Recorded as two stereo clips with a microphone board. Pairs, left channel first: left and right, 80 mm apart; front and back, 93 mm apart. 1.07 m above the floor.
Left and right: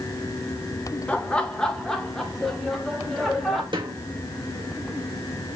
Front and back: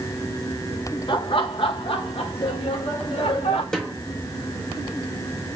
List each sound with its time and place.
1.1 s laughter: 20° left, 1.0 m; by 3.6 s straight ahead, 2.5 m
3.7 s a snare drum: 80° right, 1.4 m